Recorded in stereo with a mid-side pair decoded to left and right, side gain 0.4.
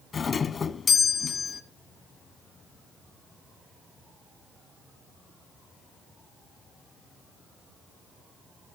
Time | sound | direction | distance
0.1 | a doorbell | 50° left | 1.0 m